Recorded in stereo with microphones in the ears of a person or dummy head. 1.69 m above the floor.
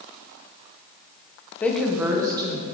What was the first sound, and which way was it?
A woman speaking, 10° left (ahead or behind).